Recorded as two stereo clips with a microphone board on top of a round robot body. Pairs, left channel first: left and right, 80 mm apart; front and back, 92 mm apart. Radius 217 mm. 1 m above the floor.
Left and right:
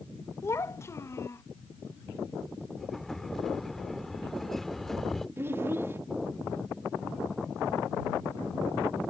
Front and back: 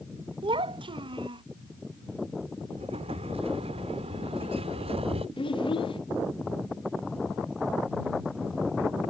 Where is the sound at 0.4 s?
150° left.